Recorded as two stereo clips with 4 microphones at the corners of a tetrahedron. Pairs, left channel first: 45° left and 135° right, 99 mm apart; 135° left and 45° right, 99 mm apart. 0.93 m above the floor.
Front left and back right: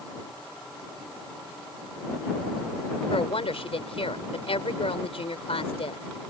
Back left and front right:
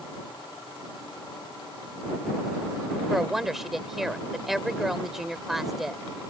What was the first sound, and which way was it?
A woman speaking, 40° left.